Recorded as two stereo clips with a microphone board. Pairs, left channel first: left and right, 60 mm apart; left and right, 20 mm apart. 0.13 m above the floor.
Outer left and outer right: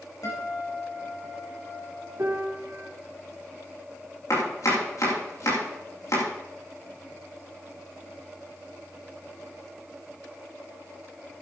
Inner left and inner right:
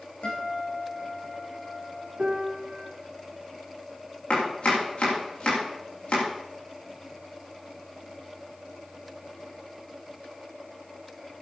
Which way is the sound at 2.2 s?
55° right (ahead or behind).